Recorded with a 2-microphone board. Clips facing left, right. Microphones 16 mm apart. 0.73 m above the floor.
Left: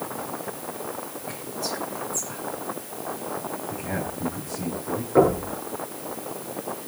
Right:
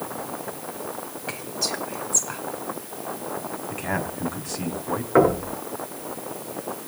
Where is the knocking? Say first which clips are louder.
Right 1 dB; 70° right (ahead or behind), 8 m.